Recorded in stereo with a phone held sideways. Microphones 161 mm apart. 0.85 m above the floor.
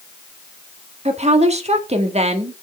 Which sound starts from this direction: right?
A woman speaking, at 1.1 s.